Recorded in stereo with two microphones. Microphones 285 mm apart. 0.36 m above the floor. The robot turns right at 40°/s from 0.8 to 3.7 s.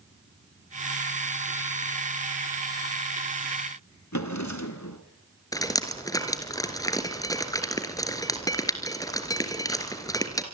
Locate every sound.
4.1 s a drawer: 75° left (ahead or behind), 2.5 m
5.5 s dripping: 10° left (ahead or behind), 3 m